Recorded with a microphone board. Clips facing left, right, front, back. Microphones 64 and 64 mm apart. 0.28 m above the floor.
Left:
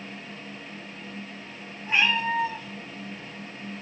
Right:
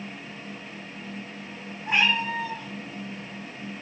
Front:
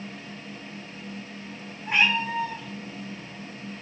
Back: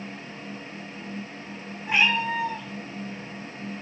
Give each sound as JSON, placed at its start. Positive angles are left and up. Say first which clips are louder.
{"t": 1.9, "sound": "a cat meowing", "louder": "even, back 1 dB", "azimuth_deg": -95, "distance_m": 2.0}